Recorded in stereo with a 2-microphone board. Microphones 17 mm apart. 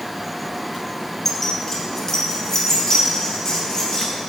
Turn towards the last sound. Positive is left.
turn(degrees=35)  # may be behind; listen again after turning